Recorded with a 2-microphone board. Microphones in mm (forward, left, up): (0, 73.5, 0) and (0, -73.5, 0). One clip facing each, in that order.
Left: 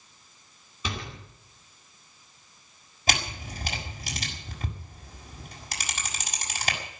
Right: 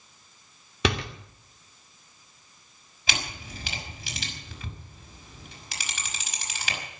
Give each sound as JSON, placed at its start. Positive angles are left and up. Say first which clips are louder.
{"t": 0.8, "sound": "a door slam", "louder": "right 9 dB", "side_deg": -80, "distance_m": 3.0}
{"t": 3.1, "sound": "a camera shutter", "louder": "left 4 dB", "side_deg": 45, "distance_m": 5.5}